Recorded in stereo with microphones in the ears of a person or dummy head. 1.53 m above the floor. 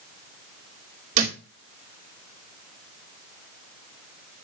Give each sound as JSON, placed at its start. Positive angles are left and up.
{"t": 1.1, "sound": "a thud", "side_deg": -45, "distance_m": 2.5}